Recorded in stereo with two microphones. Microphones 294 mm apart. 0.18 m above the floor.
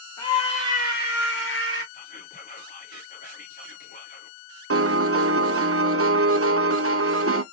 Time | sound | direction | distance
0.2 | a scream | 15° left (ahead or behind) | 1.6 m
1.9 | whispering | 30° left (ahead or behind) | 1.2 m
4.7 | a piano | 50° right (ahead or behind) | 0.6 m